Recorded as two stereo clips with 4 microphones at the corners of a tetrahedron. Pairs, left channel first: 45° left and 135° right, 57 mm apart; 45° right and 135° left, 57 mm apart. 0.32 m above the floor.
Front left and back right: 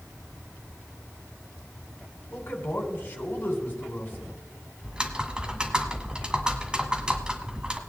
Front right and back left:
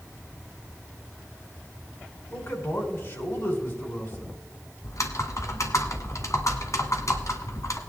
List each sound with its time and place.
2.3 s a man speaking: 10° right, 3 m
4.8 s typing on a keyboard: 65° right, 1.4 m